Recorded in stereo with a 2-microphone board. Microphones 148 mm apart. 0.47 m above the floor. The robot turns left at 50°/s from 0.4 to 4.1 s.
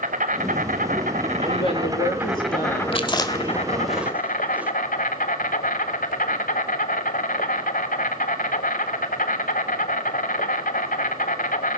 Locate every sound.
0.0 s an insect: 75° right, 1.7 m; by 11.8 s 100° left, 1.7 m
1.4 s a woman speaking: 155° left, 5.5 m; by 2.8 s 85° left, 5.5 m
2.9 s chewing: 40° left (ahead or behind), 1.6 m; by 4.7 s 10° right (ahead or behind), 1.6 m